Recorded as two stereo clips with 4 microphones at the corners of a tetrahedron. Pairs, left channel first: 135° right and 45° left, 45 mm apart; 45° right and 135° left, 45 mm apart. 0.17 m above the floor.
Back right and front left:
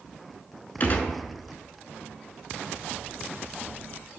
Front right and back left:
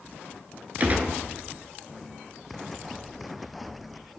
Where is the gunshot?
Straight behind, 0.5 m.